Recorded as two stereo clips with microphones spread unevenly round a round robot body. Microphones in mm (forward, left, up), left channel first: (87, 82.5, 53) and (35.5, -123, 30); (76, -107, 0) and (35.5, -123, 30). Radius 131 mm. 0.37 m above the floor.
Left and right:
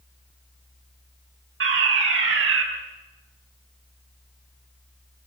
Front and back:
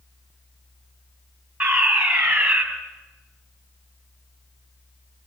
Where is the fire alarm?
95° right, 4.5 m.